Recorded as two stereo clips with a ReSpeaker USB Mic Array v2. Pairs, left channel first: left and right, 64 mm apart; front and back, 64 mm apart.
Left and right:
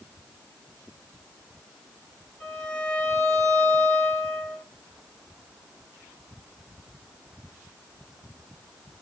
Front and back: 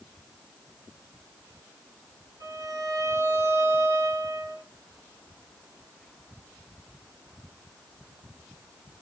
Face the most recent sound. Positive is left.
turn(degrees=165)